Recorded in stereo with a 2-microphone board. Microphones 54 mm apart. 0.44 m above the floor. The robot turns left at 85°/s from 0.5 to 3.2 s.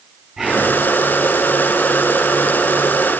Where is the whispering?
10° right (ahead or behind), 3.5 m; by 0.7 s 5° left (ahead or behind), 3.5 m.